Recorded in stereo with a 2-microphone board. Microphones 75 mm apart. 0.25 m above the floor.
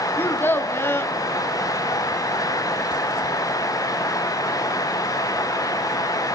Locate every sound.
0.2 s a child speaking: 30° left (ahead or behind), 1.0 m